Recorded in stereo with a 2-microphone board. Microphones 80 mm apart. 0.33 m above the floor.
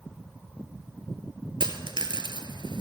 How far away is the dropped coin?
About 0.9 m.